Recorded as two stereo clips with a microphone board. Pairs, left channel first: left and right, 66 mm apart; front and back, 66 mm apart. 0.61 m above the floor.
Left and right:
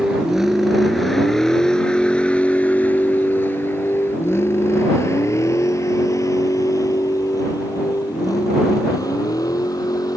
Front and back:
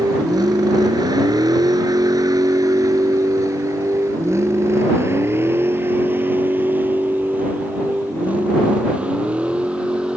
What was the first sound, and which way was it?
A vehicle, 170° right.